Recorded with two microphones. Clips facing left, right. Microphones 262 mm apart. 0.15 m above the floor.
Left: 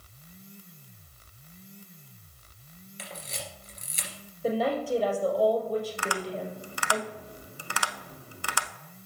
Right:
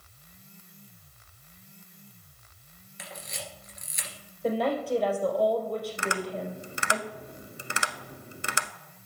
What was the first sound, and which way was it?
A camera shutter, 35° left (ahead or behind).